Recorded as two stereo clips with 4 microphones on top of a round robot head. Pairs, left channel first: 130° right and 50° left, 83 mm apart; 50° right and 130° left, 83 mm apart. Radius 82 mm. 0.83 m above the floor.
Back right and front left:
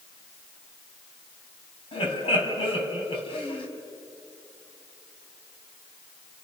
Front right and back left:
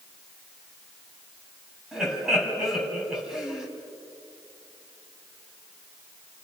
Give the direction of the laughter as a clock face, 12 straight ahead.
5 o'clock.